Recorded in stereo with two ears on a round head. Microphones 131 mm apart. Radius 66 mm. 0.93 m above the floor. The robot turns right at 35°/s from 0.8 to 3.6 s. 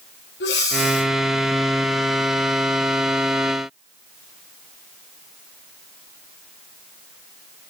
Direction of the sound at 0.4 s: 80° left.